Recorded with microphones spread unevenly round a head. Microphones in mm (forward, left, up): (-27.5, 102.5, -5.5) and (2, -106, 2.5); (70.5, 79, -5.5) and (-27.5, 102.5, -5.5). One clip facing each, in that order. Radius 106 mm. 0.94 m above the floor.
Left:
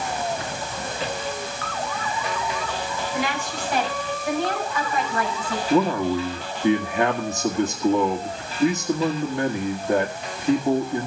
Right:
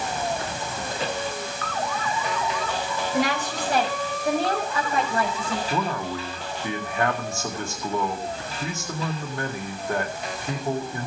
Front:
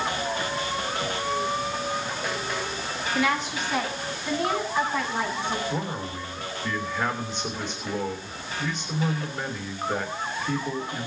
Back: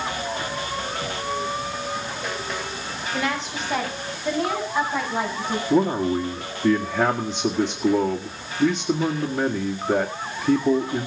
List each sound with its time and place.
3.1 s a woman speaking: 135° right, 6 m; by 5.6 s 145° right, 6.5 m
5.7 s a man speaking: 170° left, 2 m